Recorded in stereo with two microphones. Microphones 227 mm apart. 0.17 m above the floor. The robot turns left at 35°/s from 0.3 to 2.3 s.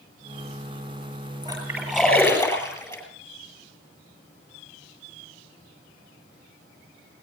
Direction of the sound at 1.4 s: 20° right (ahead or behind).